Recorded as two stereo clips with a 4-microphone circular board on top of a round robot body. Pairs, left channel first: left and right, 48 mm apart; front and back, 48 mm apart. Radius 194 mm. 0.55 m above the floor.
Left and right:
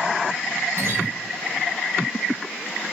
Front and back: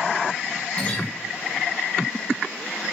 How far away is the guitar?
About 7.5 m.